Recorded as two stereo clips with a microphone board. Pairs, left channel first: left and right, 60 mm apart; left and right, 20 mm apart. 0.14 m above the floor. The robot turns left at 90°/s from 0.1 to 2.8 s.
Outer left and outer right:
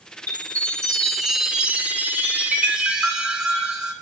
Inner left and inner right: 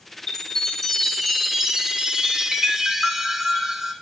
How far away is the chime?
About 1.0 m.